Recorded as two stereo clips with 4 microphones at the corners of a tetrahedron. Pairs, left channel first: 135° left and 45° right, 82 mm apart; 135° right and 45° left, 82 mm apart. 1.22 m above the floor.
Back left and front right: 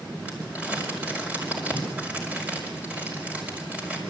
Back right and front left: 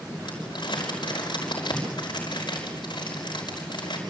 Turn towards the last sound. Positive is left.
turn(degrees=-115)